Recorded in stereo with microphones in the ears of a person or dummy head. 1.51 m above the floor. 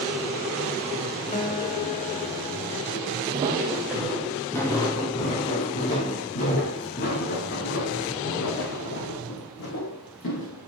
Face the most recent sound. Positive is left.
turn(degrees=55)  # may be behind; listen again after turning